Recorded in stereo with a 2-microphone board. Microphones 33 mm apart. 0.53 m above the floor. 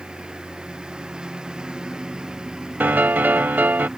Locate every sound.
0.0 s a lawn mower: 25° right (ahead or behind); by 4.0 s 20° right (ahead or behind)
2.8 s a piano: 80° right